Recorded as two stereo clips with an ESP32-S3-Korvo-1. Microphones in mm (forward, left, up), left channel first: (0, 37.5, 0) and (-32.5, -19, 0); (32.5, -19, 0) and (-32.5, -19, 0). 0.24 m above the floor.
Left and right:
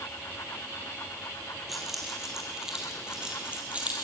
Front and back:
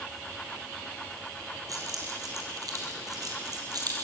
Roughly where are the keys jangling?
Behind left.